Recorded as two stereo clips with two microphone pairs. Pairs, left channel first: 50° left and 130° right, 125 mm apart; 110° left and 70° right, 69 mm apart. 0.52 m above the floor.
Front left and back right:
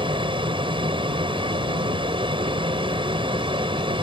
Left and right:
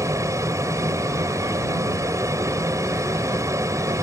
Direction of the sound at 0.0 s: 95° right.